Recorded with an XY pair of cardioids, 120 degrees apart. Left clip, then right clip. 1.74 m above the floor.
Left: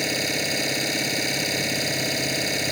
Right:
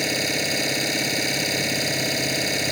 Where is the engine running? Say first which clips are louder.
Right 1 dB; 10° right.